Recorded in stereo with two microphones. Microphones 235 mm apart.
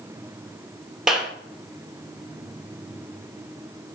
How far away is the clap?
About 2.5 m.